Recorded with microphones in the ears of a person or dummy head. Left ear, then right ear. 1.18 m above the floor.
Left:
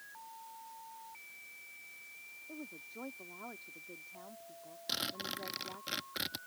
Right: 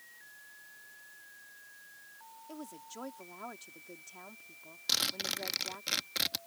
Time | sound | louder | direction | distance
2.5 | a woman speaking | right 3 dB | 70° right (ahead or behind) | ?
4.9 | a zipper | right 6 dB | 25° right (ahead or behind) | ?